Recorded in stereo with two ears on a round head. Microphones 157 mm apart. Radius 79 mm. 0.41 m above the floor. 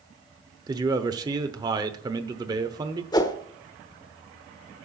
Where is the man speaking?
25° right (ahead or behind), 0.9 m.